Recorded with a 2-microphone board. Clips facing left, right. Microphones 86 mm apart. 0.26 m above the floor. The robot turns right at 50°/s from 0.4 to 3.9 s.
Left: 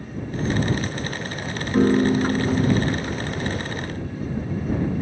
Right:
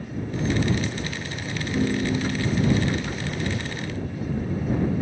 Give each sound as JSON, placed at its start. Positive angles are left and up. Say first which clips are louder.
{"t": 1.7, "sound": "a piano", "louder": "left 7 dB", "azimuth_deg": 80}